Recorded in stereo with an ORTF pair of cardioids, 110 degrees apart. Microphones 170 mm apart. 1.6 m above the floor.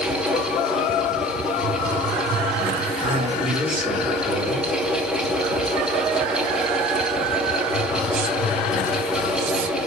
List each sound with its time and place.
0.0 s a fan: 5° right, 2 m
3.0 s a man speaking: 30° right, 6.5 m